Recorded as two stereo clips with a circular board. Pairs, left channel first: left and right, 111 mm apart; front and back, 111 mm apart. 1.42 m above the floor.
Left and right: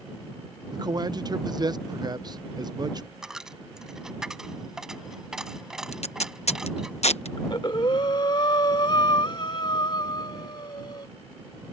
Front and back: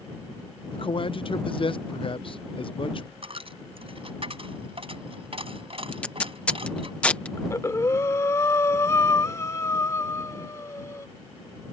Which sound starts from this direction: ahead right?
A man speaking, at 0.7 s.